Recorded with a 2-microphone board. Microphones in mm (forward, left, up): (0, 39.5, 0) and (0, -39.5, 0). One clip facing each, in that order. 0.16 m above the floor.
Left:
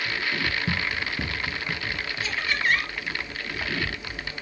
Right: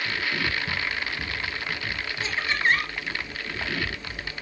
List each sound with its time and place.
0.7 s running footsteps: 75° left (ahead or behind), 0.8 m; by 2.1 s 70° left (ahead or behind), 1.9 m
2.2 s laughter: 25° right (ahead or behind), 4 m